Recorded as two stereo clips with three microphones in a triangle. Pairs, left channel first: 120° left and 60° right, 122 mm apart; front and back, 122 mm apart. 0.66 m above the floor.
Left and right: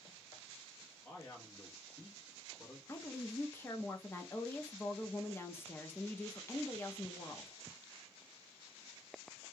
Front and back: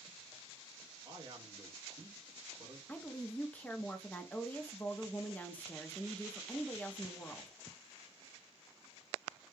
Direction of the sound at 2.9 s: 65° left.